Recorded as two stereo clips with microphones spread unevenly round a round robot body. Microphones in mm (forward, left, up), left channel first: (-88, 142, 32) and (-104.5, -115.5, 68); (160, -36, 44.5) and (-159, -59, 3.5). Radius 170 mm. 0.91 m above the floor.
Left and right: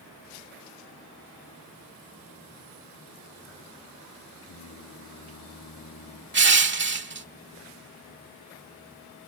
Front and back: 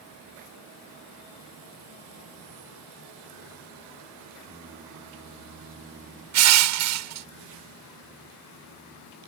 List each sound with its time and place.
4.4 s singing: 115° left
6.3 s crushing: 140° right